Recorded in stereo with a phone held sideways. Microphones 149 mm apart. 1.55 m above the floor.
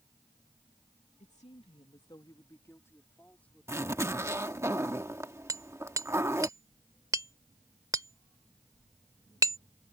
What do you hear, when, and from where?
1.2 s a woman speaking: 55° left (ahead or behind); by 4.7 s centre (ahead or behind)
3.7 s a zipper: 20° right (ahead or behind)
5.5 s hammering: 25° right (ahead or behind)